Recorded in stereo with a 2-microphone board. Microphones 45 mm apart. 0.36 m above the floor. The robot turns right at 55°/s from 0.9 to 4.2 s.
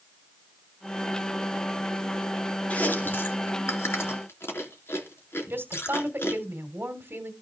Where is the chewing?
30° left (ahead or behind), 3.5 m; by 6.4 s 65° left (ahead or behind), 3.5 m.